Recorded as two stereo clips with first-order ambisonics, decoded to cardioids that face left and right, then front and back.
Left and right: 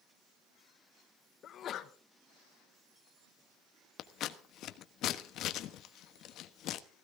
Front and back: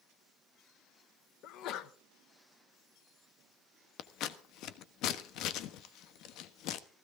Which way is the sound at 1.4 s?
35° left.